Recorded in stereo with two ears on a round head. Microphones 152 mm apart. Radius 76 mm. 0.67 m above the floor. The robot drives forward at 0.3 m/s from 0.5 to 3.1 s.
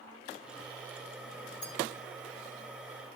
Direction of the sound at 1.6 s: 25° left (ahead or behind).